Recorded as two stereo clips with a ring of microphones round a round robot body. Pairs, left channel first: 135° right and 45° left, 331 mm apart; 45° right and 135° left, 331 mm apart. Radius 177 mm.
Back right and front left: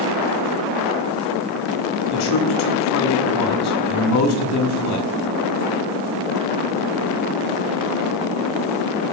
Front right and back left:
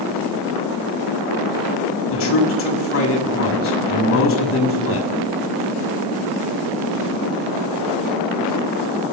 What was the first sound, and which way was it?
A man speaking, 95° right.